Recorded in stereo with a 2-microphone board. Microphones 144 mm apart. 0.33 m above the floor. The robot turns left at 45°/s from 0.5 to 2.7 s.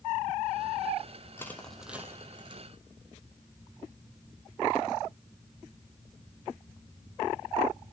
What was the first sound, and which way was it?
Crushing, 20° left (ahead or behind).